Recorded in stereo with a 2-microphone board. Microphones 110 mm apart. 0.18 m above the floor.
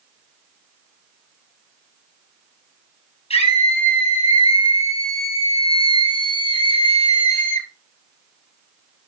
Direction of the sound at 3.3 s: 75° left (ahead or behind).